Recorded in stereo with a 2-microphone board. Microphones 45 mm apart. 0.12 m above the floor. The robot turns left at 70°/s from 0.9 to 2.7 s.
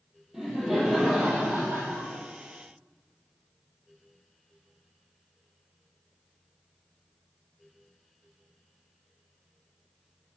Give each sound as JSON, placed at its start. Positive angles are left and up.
{"t": 0.3, "sound": "laughter", "azimuth_deg": -10, "distance_m": 3.5}